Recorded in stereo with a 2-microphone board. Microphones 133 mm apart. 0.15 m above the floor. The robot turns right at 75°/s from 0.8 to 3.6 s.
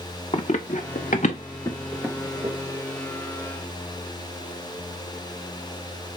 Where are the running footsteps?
55° left (ahead or behind), 1.0 m; by 2.5 s 50° right (ahead or behind), 2 m.